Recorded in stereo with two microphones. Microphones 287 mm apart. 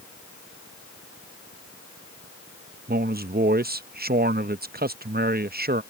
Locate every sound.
2.9 s a man speaking: 35° right (ahead or behind)